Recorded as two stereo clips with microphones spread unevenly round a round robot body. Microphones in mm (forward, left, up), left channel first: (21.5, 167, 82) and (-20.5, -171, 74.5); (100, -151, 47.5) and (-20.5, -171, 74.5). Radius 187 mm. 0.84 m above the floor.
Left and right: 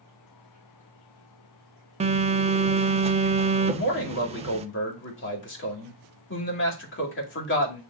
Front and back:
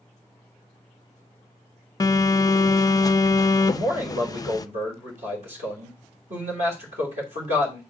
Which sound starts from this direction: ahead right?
A phone buzzing, at 2.0 s.